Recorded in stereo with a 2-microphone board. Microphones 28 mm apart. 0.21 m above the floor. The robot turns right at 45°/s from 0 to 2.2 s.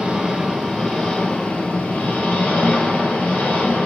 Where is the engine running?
25° right, 4 m; by 3.9 s 75° left, 4 m.